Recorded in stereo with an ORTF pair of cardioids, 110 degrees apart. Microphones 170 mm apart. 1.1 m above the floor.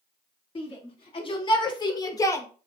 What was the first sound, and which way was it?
A shout, 35° left.